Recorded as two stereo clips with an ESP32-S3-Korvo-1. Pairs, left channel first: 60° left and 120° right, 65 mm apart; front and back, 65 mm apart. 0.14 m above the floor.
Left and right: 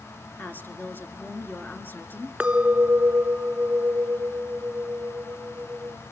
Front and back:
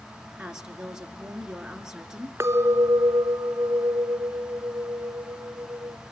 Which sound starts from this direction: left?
A woman speaking, at 0.4 s.